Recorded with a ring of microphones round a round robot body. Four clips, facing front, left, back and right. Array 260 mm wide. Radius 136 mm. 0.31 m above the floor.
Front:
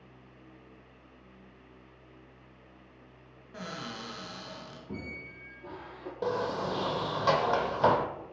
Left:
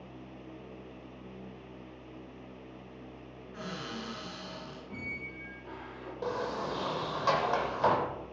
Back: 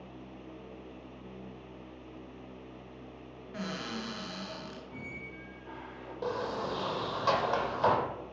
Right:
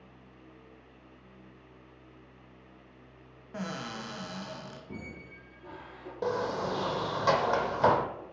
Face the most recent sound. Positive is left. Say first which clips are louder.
# right 3 dB, front 3 dB
turn(degrees=-50)